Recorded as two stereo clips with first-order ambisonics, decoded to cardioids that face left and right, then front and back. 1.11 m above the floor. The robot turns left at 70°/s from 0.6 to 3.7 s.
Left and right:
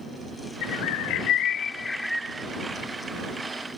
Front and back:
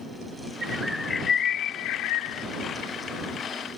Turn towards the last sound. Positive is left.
turn(degrees=-110)